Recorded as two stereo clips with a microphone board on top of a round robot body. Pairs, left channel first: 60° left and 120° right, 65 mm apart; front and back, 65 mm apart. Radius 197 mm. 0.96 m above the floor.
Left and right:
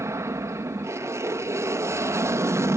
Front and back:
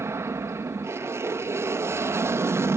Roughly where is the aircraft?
Behind right.